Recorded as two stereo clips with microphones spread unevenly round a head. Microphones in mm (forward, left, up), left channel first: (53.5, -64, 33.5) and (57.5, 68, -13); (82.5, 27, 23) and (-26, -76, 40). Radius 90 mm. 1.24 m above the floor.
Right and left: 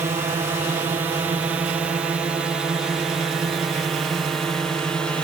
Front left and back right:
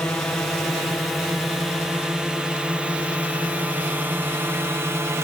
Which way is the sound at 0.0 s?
120° left.